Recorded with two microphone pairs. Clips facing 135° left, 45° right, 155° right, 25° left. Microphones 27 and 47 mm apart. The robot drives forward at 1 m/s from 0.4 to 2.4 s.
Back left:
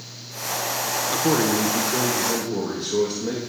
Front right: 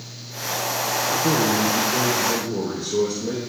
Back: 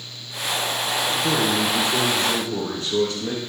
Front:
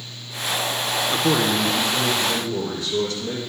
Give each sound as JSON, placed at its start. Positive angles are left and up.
{"t": 1.1, "sound": "a man speaking", "azimuth_deg": 70, "distance_m": 0.6}